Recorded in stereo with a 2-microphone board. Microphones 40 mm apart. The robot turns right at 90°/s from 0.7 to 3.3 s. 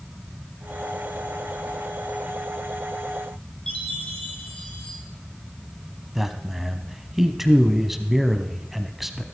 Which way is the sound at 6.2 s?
5° right (ahead or behind).